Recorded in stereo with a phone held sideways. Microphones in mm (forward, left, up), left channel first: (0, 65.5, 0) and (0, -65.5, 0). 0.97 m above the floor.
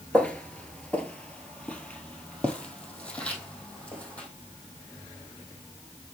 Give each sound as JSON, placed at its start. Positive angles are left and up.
{"t": 0.1, "sound": "footsteps", "side_deg": 10, "distance_m": 0.9}